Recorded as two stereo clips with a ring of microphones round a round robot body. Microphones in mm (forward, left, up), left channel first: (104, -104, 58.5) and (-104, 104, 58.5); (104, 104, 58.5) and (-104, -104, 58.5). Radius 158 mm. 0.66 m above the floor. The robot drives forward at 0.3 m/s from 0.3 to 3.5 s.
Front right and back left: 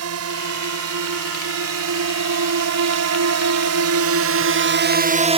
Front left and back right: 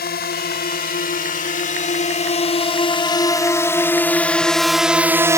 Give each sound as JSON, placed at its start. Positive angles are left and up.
{"t": 0.0, "sound": "a drone", "azimuth_deg": 100}